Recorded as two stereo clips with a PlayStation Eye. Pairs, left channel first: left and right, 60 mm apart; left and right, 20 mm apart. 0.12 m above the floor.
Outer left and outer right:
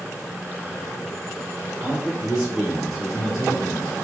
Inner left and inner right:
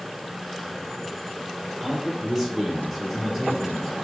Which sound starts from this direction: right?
A man speaking, at 1.8 s.